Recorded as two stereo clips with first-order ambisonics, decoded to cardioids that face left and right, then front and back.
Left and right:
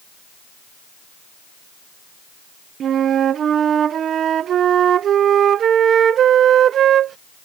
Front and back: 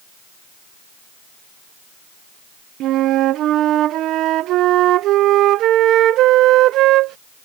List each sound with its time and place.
2.8 s a flute: 145° right